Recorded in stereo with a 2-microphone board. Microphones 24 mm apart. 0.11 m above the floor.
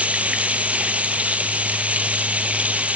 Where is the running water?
65° right (ahead or behind), 1.1 m.